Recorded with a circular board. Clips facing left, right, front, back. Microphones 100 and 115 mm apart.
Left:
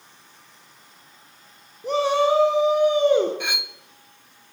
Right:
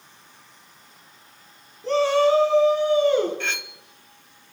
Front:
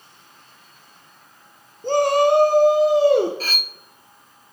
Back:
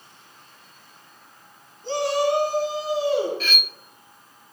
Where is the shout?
20° left, 2.5 m.